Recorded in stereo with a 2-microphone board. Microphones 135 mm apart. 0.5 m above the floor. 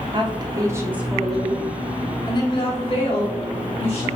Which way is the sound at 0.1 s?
40° right (ahead or behind).